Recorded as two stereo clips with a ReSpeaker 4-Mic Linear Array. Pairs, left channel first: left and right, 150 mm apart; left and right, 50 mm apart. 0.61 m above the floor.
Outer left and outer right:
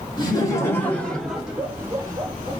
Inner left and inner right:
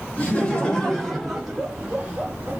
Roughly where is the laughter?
Left.